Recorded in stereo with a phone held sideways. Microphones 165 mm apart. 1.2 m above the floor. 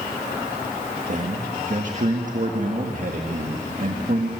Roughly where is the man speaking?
Right.